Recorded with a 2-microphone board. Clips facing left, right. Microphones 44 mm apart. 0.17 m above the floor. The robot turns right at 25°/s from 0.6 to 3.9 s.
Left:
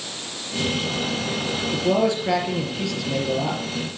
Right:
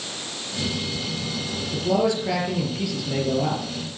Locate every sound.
1.7 s a man speaking: 155° left, 4 m; by 3.6 s 160° right, 4 m